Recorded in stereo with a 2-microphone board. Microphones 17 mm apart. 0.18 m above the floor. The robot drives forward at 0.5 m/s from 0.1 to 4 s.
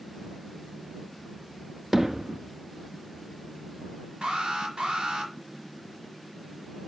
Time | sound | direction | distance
1.9 | hammering | 35° right (ahead or behind) | 0.9 m
4.2 | an alarm | 60° right (ahead or behind) | 4.5 m